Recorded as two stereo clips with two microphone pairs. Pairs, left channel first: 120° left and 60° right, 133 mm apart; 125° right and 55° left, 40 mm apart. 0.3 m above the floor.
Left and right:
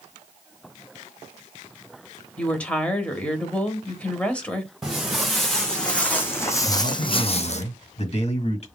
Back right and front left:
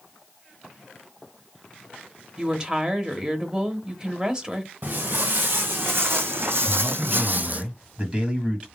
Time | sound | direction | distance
2.4 | a woman speaking | 60° left | 0.9 m
4.8 | footsteps | 30° left | 1.7 m
6.6 | a man speaking | 115° left | 1.5 m